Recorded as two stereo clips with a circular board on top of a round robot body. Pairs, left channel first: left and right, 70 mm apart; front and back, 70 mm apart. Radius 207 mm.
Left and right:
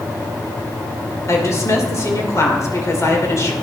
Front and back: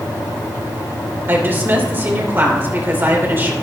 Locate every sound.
1.3 s a woman speaking: 125° left, 3 m